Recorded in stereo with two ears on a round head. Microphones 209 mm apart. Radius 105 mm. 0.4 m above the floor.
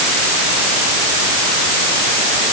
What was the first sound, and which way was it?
Only background noise.